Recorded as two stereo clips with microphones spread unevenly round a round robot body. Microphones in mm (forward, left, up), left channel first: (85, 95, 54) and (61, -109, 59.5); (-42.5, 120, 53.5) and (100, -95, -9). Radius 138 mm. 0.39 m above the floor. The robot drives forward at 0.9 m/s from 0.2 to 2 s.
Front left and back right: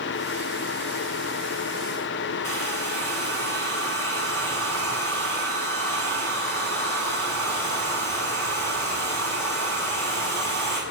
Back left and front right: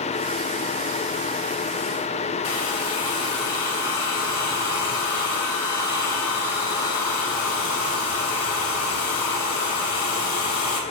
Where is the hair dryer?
160° left, 3 m.